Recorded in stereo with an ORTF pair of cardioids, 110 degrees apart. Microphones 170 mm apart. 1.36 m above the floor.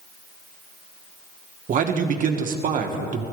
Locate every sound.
1.7 s a man speaking: 55° right, 1.6 m